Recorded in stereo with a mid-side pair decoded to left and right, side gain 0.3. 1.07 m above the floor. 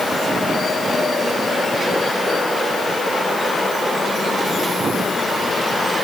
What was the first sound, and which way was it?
Only background noise.